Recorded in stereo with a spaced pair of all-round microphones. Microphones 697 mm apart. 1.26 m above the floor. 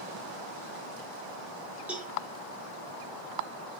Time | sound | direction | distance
1.9 | a cowbell | centre (ahead or behind) | 1.1 m